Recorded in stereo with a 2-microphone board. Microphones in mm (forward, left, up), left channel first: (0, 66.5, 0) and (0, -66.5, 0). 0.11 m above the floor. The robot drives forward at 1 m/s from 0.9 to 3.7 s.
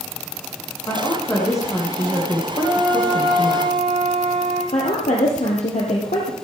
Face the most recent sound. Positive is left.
turn(degrees=65)  # may be behind; listen again after turning